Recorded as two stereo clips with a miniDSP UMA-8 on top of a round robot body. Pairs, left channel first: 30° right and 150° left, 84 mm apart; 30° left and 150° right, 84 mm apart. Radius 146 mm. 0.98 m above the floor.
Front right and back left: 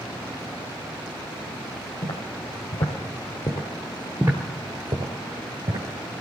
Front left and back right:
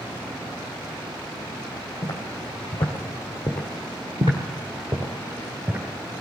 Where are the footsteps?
30° right, 2.5 m; by 5.8 s 160° left, 2.5 m.